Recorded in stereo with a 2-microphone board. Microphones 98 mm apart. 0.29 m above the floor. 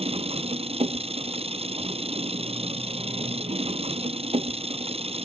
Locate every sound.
0.0 s an engine running: 80° right